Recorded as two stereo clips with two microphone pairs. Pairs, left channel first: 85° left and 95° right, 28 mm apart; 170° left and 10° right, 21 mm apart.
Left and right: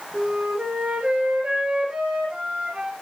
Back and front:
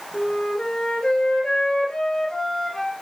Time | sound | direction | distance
0.1 | a flute | 140° right | 3.5 m